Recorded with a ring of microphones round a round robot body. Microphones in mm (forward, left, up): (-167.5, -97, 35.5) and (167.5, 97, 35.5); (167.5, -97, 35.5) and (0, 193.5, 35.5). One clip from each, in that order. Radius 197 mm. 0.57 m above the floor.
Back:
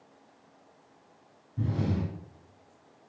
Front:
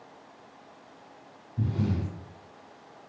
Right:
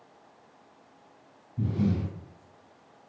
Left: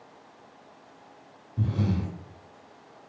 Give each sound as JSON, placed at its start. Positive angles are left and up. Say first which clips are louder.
{"t": 1.6, "sound": "breathing", "louder": "even, right 1 dB", "azimuth_deg": 130, "distance_m": 1.2}